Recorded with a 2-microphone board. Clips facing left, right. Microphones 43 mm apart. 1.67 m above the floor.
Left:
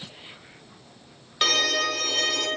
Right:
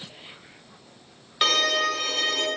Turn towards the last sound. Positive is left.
turn(degrees=-5)  # may be behind; listen again after turning